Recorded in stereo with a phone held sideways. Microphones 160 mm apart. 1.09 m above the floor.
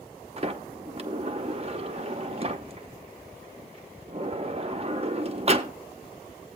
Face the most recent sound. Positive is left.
turn(degrees=-40)  # may be behind; listen again after turning